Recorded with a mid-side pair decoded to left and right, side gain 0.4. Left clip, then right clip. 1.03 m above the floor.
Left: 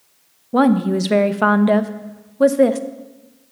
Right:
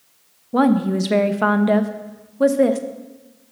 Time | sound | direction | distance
0.5 | a woman speaking | 25° left | 0.7 m